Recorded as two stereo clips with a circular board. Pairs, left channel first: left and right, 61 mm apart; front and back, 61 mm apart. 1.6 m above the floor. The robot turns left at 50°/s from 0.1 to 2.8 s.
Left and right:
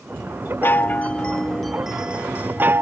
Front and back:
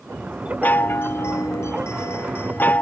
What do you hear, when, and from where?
0.6 s a chime: 55° left; by 2.8 s 55° right